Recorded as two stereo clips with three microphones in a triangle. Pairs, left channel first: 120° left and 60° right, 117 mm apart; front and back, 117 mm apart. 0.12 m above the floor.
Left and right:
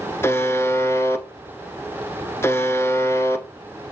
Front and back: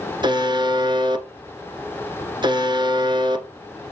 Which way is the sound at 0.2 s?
175° left.